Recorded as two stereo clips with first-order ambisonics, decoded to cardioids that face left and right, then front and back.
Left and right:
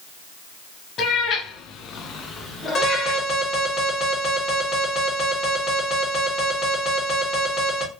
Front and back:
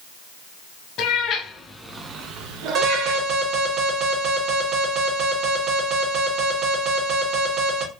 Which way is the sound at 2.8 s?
145° left.